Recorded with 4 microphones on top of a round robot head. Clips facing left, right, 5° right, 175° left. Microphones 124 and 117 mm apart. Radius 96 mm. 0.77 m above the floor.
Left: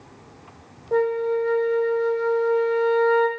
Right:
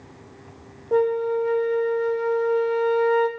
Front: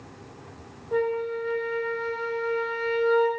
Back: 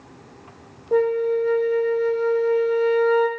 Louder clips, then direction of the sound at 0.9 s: Right 1 dB, back 7 dB; 165° right.